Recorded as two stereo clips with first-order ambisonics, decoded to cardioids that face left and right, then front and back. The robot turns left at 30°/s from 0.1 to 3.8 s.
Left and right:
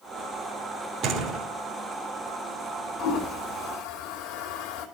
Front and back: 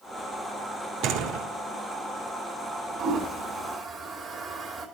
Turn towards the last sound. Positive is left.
turn(degrees=100)